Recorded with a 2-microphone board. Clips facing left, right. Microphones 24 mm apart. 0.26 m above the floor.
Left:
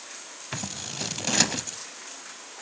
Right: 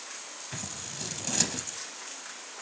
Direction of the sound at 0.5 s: 35° left (ahead or behind).